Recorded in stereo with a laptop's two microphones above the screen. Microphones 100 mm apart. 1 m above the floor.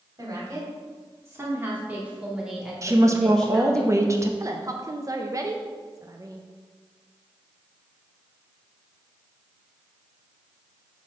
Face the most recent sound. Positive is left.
turn(degrees=-35)  # may be behind; listen again after turning